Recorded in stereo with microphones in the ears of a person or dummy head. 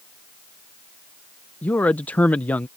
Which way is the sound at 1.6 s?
10° left (ahead or behind).